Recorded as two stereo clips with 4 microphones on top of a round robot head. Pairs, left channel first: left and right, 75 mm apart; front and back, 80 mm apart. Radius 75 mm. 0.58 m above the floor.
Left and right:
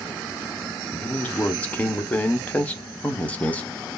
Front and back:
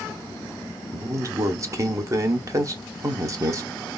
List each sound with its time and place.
0.9 s a man speaking: 155° left, 1.0 m